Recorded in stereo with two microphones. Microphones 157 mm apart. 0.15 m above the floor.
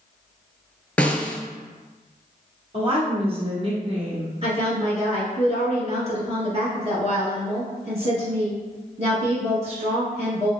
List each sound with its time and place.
1.0 s a snare drum: 10° left (ahead or behind), 0.6 m
2.7 s a woman speaking: 40° right (ahead or behind), 1.9 m
4.4 s a woman speaking: 40° right (ahead or behind), 1.8 m